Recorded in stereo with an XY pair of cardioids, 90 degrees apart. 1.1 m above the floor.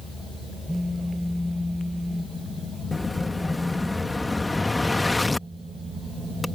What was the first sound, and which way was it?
A phone buzzing, 10° left.